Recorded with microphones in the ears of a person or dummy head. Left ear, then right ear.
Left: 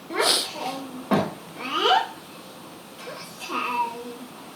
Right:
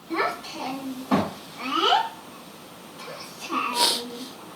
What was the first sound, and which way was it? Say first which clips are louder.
A child speaking: left 4 dB; 25° left (ahead or behind).